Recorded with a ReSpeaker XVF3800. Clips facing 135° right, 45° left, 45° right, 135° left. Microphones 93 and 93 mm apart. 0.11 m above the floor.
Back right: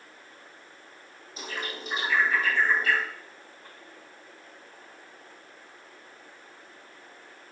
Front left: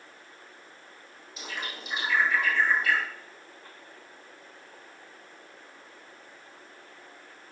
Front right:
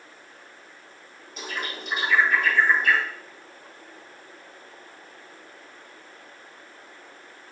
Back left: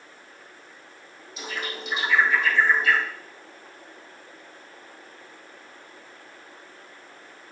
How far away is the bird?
About 5.5 m.